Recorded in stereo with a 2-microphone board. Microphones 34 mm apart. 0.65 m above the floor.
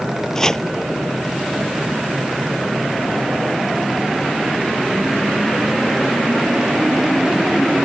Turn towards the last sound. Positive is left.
turn(degrees=15)  # may be behind; listen again after turning